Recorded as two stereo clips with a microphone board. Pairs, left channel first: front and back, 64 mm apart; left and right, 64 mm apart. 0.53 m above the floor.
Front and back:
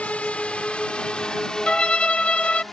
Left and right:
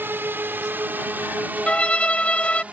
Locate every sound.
0.0 s a drone: 55° right; by 2.7 s 80° right
1.7 s a violin: 55° left